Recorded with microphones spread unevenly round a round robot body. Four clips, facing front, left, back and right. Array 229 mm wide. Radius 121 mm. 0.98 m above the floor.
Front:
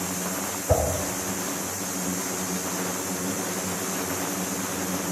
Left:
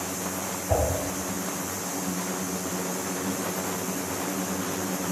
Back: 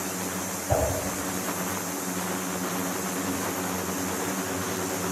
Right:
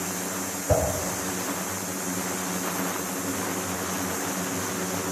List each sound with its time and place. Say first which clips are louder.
0.7 s a whoosh: right 2 dB, front 3 dB; 50° right, 5 m